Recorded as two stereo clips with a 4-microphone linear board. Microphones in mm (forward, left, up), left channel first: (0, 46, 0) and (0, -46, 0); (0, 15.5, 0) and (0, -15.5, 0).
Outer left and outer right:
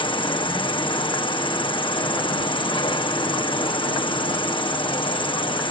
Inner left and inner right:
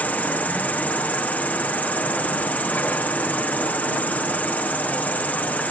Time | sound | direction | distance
0.0 | an insect | 60° left (ahead or behind) | ?